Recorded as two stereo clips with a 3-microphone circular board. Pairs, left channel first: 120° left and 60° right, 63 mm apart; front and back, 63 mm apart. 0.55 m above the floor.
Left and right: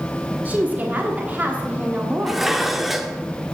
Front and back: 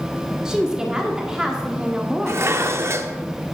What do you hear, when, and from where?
0.5 s a woman speaking: 110° right, 1.2 m
2.3 s dishes clattering: 150° right, 0.6 m